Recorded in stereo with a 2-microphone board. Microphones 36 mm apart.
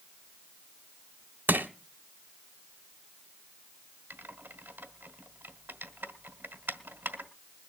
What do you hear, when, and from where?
1.5 s crushing: 65° right (ahead or behind), 1.2 m
4.1 s typing on a keyboard: 70° right (ahead or behind), 1.3 m